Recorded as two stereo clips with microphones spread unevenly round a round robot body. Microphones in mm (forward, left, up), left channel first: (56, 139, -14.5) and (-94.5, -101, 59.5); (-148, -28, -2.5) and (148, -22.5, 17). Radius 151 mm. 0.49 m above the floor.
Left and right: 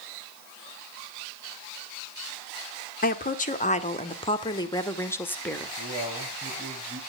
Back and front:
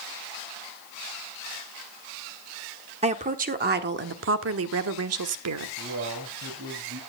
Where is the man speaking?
45° right, 3 m.